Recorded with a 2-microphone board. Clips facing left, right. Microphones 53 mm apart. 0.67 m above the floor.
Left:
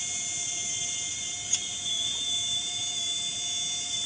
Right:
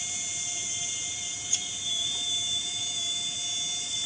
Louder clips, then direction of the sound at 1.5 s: Even; 30° left (ahead or behind).